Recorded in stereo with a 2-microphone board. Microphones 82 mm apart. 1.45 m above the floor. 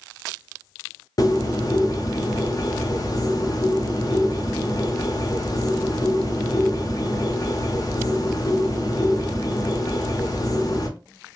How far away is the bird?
About 0.6 m.